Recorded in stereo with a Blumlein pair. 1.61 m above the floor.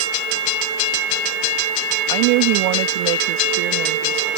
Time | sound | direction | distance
2.1 | a woman speaking | 45° right | ?